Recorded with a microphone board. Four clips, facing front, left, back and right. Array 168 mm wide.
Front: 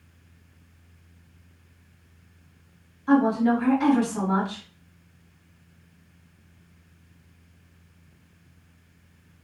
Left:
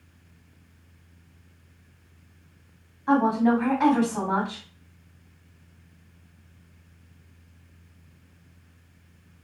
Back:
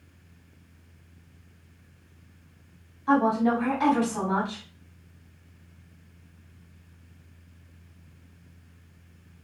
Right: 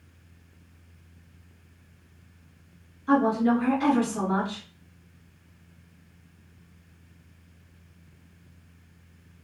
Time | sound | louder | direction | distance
3.1 | a woman speaking | left 1 dB, front 2 dB | 115° left | 1.6 m